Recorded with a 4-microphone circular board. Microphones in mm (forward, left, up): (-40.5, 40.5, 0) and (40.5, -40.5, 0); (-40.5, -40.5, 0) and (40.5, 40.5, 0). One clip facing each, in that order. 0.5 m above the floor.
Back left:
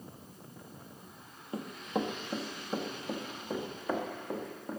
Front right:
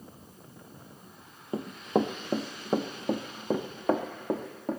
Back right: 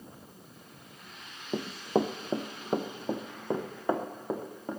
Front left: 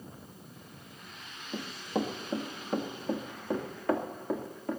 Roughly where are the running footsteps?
Right.